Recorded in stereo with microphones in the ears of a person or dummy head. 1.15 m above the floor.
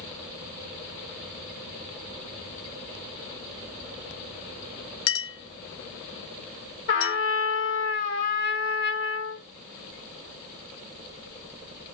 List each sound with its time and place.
5.1 s a clink: 75° left (ahead or behind), 1.0 m
6.9 s a trumpet: 65° left (ahead or behind), 2.0 m